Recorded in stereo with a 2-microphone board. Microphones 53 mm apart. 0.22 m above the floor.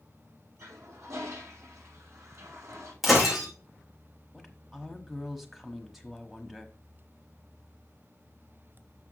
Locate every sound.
0.6 s a toilet flushing: 75° right (ahead or behind), 5 m
3.0 s breaking glass: centre (ahead or behind), 3.5 m
4.3 s a woman speaking: 5° right (ahead or behind), 1.1 m